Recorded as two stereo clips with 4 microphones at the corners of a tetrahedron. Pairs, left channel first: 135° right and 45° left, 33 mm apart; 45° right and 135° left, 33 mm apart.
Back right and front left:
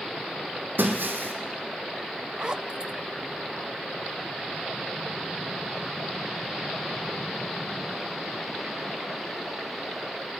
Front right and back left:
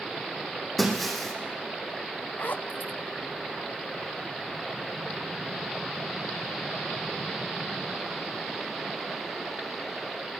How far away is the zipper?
About 0.5 m.